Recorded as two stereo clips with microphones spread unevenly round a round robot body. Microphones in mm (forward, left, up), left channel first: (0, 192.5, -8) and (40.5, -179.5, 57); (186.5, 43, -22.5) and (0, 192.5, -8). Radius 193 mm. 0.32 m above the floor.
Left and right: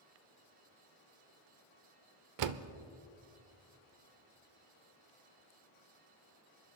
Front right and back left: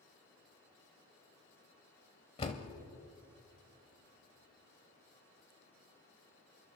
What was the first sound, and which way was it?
A door slam, 85° right.